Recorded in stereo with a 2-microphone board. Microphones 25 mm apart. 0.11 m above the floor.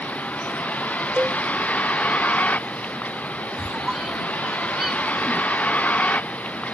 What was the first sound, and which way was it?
A vehicle, 85° left.